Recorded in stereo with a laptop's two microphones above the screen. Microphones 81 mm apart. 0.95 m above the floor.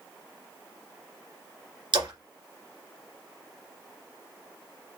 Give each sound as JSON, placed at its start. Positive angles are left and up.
{"t": 1.9, "sound": "a splash", "side_deg": -70, "distance_m": 2.0}